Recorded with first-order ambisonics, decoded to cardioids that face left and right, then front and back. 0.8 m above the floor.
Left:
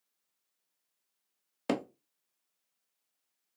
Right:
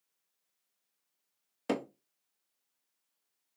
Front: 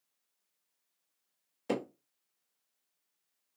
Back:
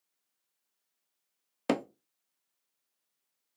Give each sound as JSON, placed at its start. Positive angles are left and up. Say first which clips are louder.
{"t": 1.7, "sound": "hammering", "louder": "left 1 dB, back 4 dB", "azimuth_deg": 165, "distance_m": 0.5}